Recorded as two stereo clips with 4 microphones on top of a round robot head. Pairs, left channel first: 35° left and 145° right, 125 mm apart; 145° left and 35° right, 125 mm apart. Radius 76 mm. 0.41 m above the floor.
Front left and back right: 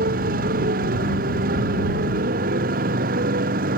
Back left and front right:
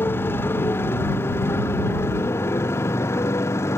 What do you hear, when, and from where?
0.0 s a motorcycle: 145° right